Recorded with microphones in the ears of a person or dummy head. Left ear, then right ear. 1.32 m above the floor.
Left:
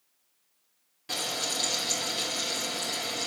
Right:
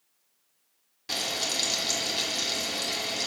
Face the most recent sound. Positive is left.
turn(degrees=-20)  # may be behind; listen again after turning